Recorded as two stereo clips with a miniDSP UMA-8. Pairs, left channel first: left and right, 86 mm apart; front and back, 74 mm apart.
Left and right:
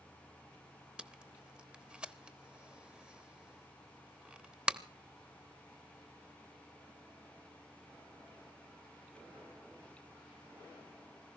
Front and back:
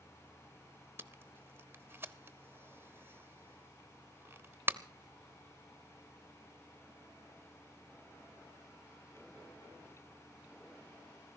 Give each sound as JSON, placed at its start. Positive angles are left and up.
{"t": 1.0, "sound": "tape being pulled", "azimuth_deg": -155, "distance_m": 0.9}